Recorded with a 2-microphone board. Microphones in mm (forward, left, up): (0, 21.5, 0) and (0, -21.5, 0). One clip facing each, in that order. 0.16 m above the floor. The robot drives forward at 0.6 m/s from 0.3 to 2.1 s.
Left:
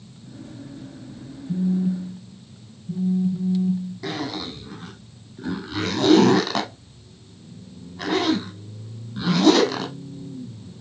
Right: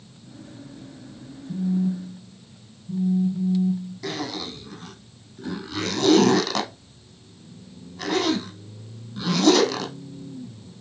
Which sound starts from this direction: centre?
A zipper, at 4.0 s.